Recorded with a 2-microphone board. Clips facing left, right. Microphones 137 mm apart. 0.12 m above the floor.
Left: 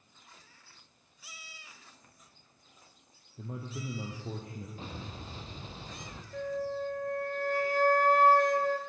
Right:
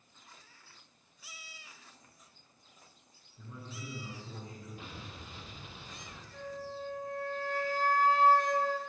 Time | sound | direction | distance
3.4 | a man speaking | 65° left (ahead or behind) | 3 m
4.8 | an explosion | 30° left (ahead or behind) | 2 m
6.3 | a flute | 55° left (ahead or behind) | 1.9 m